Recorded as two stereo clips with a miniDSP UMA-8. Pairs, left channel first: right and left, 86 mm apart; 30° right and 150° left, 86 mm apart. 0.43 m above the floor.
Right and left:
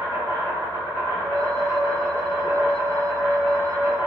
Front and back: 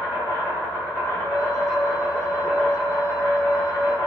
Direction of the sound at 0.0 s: 40° left.